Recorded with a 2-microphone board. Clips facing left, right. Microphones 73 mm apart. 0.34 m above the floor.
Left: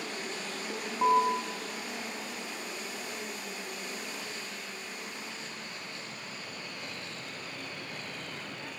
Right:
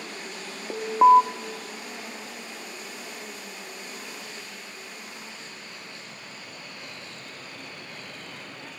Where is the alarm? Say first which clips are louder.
Right 10 dB; 50° right (ahead or behind), 1.5 m.